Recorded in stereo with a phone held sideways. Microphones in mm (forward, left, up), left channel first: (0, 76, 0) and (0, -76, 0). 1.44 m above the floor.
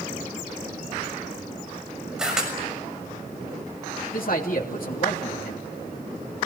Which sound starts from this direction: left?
A man speaking, at 4.1 s.